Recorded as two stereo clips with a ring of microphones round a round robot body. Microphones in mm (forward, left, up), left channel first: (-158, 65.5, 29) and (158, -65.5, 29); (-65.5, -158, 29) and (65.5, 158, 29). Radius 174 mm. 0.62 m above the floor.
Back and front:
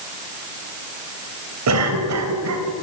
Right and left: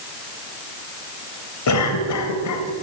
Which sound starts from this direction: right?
A cough, at 1.7 s.